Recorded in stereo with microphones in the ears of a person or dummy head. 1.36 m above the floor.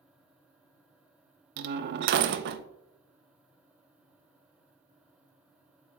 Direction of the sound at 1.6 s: 65° right (ahead or behind).